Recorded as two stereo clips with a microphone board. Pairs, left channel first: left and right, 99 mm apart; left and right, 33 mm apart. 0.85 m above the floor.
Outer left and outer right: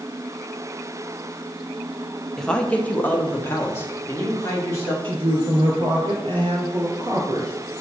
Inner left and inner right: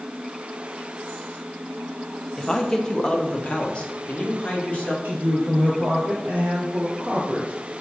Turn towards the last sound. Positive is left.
turn(degrees=-60)  # may be behind; listen again after turning